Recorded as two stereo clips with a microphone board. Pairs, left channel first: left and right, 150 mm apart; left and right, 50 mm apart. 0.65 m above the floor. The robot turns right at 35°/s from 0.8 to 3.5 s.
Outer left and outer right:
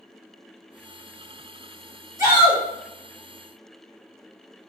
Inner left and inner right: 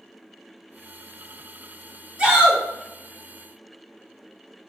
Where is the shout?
20° right (ahead or behind), 1.6 m; by 2.6 s 10° right (ahead or behind), 1.6 m.